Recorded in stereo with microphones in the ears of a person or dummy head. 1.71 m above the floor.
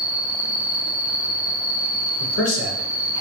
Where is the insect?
20° left (ahead or behind), 1.4 m.